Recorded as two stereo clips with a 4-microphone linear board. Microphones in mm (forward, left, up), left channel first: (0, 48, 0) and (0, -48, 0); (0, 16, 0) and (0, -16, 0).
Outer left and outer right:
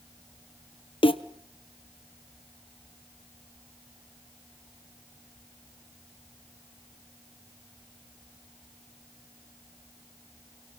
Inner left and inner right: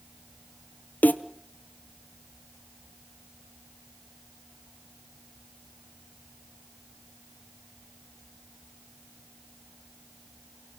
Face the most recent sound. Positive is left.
turn(degrees=65)  # may be behind; listen again after turning